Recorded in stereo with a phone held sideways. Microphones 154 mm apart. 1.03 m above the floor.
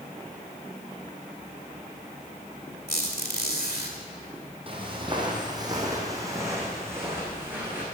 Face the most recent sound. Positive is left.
turn(degrees=-10)  # may be behind; listen again after turning